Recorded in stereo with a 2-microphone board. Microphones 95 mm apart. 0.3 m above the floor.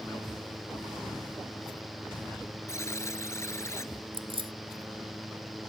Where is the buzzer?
30° left (ahead or behind).